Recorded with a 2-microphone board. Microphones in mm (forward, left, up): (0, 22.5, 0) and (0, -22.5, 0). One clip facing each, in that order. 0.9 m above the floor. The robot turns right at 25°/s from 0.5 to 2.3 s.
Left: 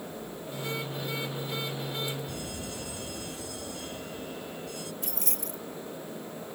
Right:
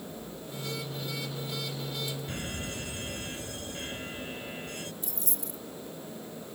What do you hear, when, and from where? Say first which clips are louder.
2.3 s an alarm: right 1 dB; 45° right (ahead or behind)
5.0 s keys jangling: left 3 dB; 80° left